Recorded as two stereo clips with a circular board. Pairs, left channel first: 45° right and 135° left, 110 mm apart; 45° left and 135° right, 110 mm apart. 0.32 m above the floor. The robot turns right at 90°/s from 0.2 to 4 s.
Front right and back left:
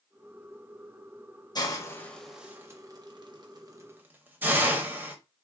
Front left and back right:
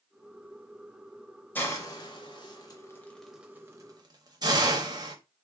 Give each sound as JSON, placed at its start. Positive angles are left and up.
{"t": 1.6, "sound": "a hiss", "azimuth_deg": -20, "distance_m": 0.6}